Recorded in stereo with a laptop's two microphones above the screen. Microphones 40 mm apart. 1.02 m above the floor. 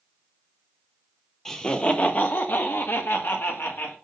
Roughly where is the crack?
I don't hear a crack.